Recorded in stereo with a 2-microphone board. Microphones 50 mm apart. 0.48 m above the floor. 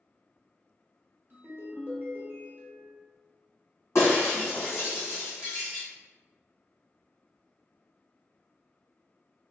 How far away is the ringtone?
About 1.0 m.